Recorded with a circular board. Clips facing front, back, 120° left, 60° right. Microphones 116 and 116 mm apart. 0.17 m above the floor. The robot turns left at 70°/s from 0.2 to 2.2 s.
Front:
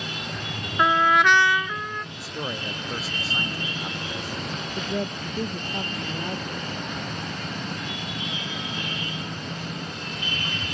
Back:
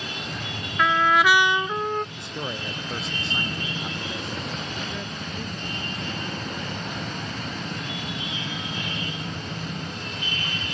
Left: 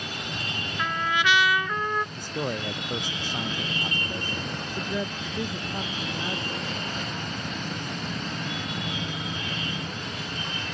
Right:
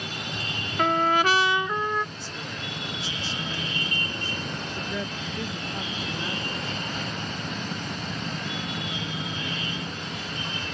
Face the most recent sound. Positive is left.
turn(degrees=45)